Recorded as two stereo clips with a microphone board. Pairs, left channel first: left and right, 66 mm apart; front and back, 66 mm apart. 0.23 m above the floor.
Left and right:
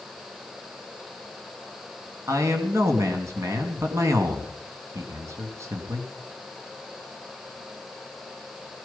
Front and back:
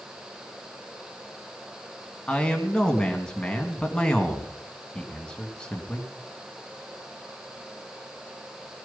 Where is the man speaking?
75° right, 2 m.